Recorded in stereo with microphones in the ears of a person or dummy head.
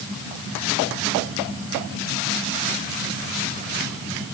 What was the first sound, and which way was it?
Only background noise.